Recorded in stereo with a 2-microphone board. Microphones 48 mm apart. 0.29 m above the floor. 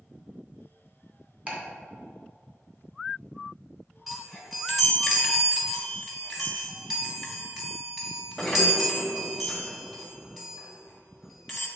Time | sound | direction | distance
1.5 | ticking | 25° right (ahead or behind) | 2.5 m
4.1 | a chime | 5° right (ahead or behind) | 1.6 m